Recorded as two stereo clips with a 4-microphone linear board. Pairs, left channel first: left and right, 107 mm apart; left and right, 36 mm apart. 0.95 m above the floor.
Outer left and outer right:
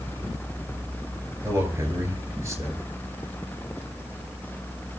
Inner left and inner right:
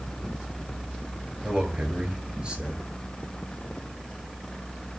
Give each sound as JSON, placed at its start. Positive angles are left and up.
{"t": 1.4, "sound": "a man speaking", "side_deg": -30, "distance_m": 8.0}